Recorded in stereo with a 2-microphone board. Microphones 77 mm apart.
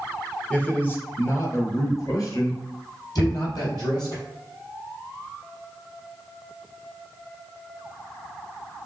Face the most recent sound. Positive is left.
turn(degrees=-20)  # may be behind; listen again after turning